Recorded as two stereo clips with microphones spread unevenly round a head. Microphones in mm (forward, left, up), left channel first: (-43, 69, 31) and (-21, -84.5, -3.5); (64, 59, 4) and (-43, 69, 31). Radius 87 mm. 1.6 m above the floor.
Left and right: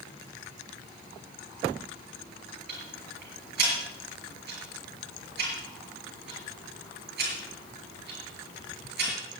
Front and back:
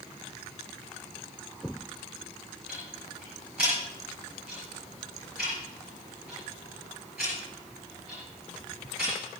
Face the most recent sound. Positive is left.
turn(degrees=-105)